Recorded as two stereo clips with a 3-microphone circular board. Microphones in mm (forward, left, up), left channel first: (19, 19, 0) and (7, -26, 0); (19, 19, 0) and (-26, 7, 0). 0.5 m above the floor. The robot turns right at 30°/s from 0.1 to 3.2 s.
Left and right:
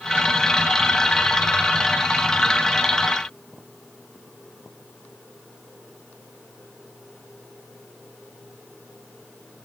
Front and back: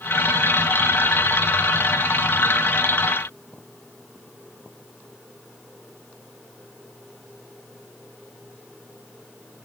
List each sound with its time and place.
Only background noise.